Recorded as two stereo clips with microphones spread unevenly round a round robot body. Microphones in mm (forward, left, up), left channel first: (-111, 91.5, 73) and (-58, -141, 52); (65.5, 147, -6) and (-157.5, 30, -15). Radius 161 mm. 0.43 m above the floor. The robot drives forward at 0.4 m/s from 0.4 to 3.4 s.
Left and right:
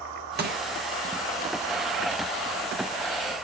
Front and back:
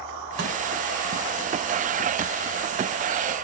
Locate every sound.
0.4 s crushing: 110° right, 2 m